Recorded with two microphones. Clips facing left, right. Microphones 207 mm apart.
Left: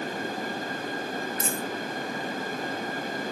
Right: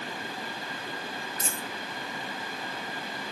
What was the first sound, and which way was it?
A dropped coin, 35° right (ahead or behind).